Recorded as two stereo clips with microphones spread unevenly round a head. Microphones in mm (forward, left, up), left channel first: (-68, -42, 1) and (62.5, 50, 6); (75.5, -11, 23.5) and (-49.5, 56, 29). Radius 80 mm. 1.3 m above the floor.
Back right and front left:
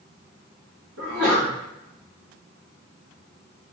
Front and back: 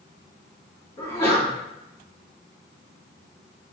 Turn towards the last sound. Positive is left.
turn(degrees=40)